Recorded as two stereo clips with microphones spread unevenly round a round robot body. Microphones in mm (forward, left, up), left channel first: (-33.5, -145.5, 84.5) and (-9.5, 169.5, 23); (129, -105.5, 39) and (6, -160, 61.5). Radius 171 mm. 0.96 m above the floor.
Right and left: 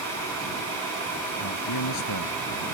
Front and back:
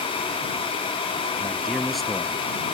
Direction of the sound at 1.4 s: 65° right.